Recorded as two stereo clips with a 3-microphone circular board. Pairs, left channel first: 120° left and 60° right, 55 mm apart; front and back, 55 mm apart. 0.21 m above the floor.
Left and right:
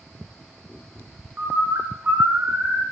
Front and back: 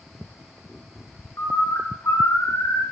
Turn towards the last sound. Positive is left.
turn(degrees=-10)